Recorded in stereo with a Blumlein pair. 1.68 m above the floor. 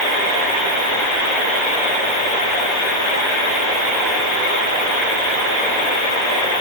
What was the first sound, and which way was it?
Only background noise.